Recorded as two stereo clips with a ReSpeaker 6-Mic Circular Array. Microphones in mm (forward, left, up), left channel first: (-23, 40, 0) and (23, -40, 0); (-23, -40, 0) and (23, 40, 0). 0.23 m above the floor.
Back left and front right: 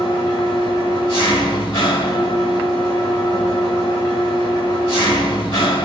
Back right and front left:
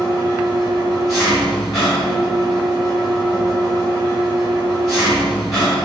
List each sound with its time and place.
0.0 s an engine running: 150° left, 7.5 m